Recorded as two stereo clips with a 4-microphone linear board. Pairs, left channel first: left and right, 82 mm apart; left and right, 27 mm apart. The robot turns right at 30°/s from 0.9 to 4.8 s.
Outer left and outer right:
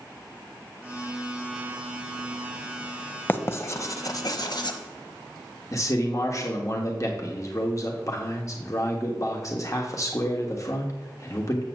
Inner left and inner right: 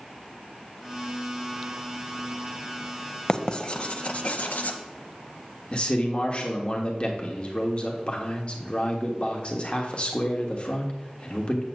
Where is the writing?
25° left (ahead or behind), 0.7 m; by 4.8 s 70° left (ahead or behind), 0.7 m.